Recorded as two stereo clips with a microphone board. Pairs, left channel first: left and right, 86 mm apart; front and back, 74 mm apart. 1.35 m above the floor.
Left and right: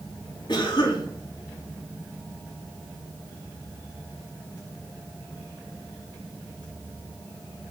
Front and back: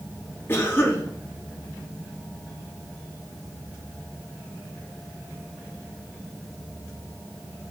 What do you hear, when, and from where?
0.5 s a cough: 60° left, 3.5 m